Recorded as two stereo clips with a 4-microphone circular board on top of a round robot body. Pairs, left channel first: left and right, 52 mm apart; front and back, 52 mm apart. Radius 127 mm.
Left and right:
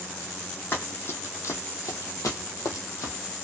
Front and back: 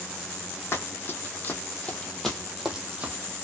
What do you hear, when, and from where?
0.7 s running footsteps: 40° left, 1.3 m; by 3.1 s 115° left, 0.9 m